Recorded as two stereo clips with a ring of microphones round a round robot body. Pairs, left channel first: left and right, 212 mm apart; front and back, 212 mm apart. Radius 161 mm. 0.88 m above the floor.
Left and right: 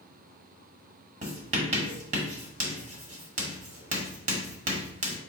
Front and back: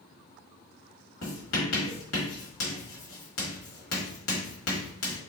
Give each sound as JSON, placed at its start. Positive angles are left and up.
{"t": 1.2, "sound": "writing", "azimuth_deg": -35, "distance_m": 1.2}